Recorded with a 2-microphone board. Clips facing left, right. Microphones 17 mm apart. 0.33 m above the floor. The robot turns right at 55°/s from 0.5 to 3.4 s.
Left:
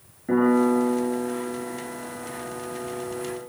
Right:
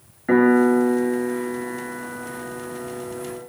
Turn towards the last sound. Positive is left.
turn(degrees=45)